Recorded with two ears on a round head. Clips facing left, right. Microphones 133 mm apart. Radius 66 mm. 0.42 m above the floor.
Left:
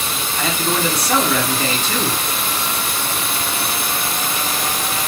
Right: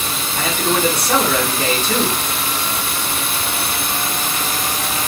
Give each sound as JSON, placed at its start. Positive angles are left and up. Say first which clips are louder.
{"t": 0.4, "sound": "a man speaking", "louder": "right 2 dB", "side_deg": -45, "distance_m": 1.6}